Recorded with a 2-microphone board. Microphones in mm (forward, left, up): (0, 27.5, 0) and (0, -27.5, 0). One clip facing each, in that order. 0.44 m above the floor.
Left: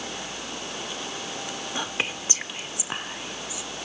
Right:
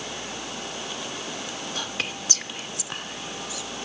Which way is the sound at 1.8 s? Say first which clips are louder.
Left 3 dB; 20° left (ahead or behind).